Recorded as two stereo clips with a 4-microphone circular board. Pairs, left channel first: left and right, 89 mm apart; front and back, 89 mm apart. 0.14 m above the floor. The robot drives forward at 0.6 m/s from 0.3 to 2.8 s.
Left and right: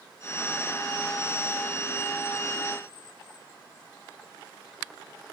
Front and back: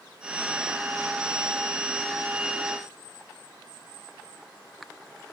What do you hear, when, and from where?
Only background noise.